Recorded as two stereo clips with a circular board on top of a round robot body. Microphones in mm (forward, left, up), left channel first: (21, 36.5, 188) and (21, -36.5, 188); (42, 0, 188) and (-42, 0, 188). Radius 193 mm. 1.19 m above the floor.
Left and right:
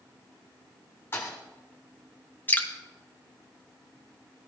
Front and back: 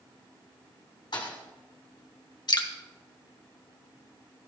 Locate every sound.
1.1 s a thud: 35° left, 1.4 m
2.5 s dripping: 30° left, 1.6 m